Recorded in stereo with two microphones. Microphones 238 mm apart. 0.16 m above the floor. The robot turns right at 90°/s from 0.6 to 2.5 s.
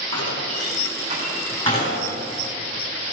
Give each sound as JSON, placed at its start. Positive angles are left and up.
{"t": 0.1, "sound": "a door slam", "side_deg": -75, "distance_m": 6.5}